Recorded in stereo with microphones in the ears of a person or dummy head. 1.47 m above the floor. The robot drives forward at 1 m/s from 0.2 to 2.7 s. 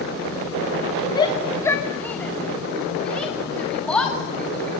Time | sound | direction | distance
1.1 | a shout | 25° left (ahead or behind) | 0.9 m